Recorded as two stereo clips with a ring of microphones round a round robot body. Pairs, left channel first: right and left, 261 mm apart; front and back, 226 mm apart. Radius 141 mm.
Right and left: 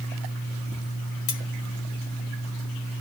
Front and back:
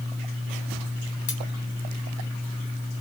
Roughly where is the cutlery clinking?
Ahead right.